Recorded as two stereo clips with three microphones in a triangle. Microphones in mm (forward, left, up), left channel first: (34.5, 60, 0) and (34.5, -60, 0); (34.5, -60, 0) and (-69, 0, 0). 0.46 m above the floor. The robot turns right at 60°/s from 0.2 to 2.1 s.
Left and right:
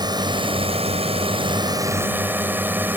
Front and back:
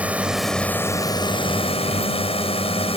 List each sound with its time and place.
0.0 s a drone: 135° right; by 3.0 s 20° right